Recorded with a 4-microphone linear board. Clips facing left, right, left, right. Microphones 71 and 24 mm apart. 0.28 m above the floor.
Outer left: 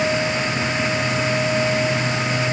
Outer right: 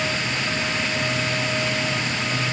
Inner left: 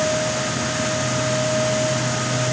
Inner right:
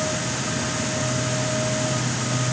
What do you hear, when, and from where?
Only background noise.